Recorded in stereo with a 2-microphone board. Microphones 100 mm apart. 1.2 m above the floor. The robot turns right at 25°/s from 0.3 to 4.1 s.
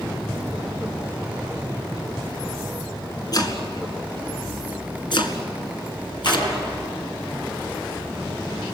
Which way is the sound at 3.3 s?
45° left (ahead or behind).